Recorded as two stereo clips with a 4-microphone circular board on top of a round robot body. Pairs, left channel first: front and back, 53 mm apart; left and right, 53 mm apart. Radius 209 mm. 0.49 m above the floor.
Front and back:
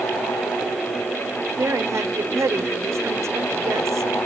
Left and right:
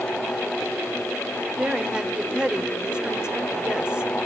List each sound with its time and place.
1.6 s a woman speaking: 160° right, 2.5 m